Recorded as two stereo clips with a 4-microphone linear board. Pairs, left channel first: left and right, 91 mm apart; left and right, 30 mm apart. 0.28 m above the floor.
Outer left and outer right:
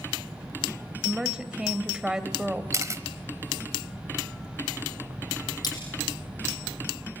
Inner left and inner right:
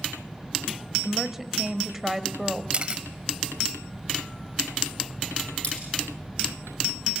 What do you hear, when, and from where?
1.0 s a woman speaking: 10° right (ahead or behind), 1.3 m
2.7 s a camera shutter: 35° right (ahead or behind), 1.0 m
5.6 s cutlery clinking: 45° left (ahead or behind), 7.5 m